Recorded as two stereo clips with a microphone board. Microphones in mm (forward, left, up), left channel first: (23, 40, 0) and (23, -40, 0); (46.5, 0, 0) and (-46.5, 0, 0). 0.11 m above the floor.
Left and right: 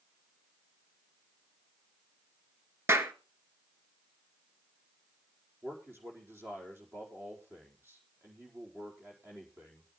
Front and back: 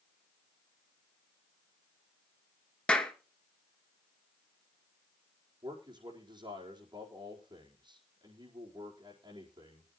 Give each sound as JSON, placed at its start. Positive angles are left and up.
{"t": 2.9, "sound": "a clap", "azimuth_deg": -70, "distance_m": 1.2}
{"t": 5.6, "sound": "a man speaking", "azimuth_deg": -150, "distance_m": 4.5}